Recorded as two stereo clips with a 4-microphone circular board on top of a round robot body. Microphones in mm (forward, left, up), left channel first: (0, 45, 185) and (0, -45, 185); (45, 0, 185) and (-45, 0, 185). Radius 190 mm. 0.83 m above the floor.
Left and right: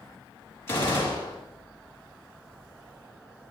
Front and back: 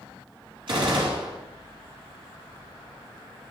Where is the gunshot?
150° left, 8.5 m.